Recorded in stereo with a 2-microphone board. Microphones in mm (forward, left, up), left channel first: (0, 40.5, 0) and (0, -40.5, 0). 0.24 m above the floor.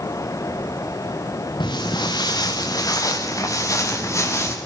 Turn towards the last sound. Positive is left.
turn(degrees=35)  # may be behind; listen again after turning